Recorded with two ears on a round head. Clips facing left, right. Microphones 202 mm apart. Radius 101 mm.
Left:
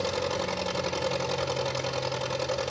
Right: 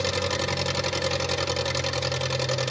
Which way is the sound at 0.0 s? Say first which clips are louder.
Right 1 dB; 30° right (ahead or behind).